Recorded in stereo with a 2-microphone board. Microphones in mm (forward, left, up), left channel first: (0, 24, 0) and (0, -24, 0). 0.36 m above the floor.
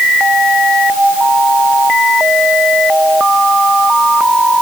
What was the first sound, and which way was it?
Only background noise.